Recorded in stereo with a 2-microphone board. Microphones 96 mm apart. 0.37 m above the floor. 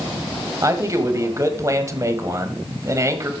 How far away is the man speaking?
About 1.6 m.